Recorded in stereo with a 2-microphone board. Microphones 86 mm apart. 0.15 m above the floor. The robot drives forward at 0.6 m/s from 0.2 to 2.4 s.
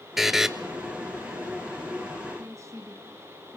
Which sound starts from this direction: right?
A woman speaking, at 2.4 s.